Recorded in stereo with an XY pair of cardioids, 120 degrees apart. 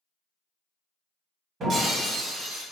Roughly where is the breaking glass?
Ahead right.